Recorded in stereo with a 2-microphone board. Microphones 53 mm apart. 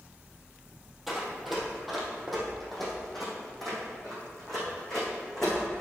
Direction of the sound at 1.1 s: 5° right (ahead or behind).